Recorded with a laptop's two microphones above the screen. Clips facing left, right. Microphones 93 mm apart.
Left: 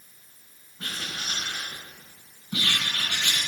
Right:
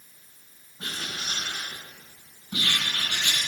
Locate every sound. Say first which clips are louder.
0.8 s writing: even; 30° right (ahead or behind), 4 m